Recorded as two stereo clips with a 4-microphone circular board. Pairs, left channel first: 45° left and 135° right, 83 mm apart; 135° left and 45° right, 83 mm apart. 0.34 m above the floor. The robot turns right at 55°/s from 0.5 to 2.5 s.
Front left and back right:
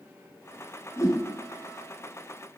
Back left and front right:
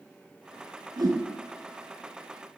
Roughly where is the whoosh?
Ahead.